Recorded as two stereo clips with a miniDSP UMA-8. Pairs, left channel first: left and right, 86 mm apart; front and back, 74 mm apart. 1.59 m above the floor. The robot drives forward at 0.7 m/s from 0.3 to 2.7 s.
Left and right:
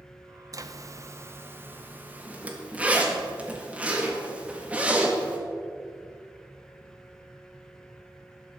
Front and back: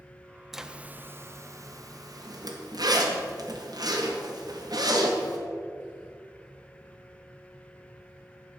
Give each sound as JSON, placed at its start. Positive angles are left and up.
{"t": 0.5, "sound": "a zipper", "azimuth_deg": -95, "distance_m": 0.7}